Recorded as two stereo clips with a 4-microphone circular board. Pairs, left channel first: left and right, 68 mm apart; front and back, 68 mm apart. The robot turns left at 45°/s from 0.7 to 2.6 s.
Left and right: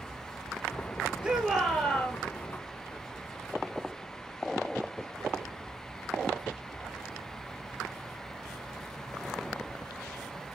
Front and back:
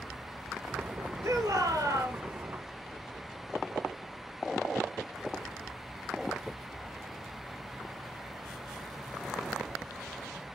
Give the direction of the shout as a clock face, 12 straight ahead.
5 o'clock.